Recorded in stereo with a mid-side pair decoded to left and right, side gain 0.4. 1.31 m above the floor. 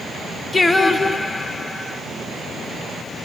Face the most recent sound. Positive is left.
turn(degrees=30)